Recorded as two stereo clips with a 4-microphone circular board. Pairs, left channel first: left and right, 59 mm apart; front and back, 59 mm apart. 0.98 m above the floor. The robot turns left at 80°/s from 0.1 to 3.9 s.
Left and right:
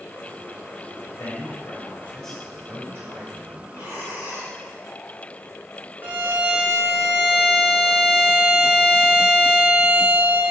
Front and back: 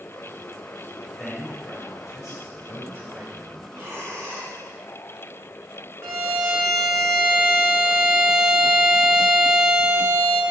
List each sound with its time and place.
1.1 s a man speaking: 100° left, 4 m; by 3.6 s 100° right, 4 m
3.7 s breathing: 125° right, 3 m; by 4.6 s 140° right, 3 m
6.0 s a violin: 145° right, 2 m